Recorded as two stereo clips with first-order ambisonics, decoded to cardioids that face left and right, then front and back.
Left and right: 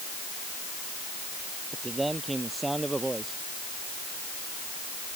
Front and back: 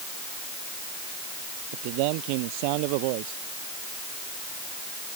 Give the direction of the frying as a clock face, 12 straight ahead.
No frying in this recording.